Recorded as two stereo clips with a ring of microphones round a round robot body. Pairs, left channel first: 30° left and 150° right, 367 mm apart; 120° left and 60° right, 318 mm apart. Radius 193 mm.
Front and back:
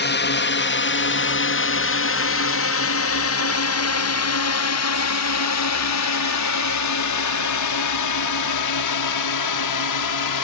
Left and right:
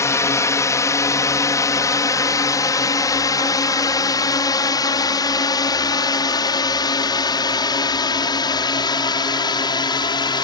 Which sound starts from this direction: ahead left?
A drone, at 0.0 s.